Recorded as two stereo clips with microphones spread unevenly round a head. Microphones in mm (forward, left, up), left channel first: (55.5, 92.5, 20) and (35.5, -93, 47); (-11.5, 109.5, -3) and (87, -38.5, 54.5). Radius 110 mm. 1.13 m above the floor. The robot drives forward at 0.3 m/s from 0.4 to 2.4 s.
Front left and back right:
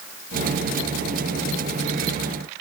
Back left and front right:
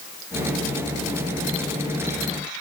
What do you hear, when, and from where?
Only background noise.